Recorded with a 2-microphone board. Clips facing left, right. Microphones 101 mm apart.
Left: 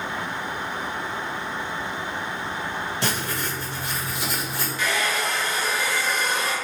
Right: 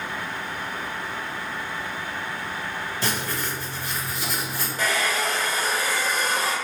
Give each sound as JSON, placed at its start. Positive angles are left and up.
{"t": 3.0, "sound": "writing", "side_deg": 70, "distance_m": 1.5}
{"t": 4.8, "sound": "a hair dryer", "side_deg": -40, "distance_m": 0.7}